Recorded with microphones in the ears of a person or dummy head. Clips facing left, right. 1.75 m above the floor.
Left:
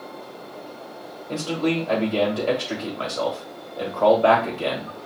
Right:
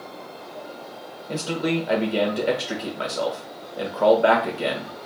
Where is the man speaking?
25° right (ahead or behind), 1.4 m.